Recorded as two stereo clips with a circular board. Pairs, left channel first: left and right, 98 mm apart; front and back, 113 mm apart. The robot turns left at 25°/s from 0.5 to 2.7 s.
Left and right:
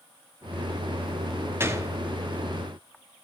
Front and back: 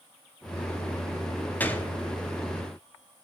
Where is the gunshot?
55° right, 0.8 m; by 1.9 s 65° right, 0.8 m.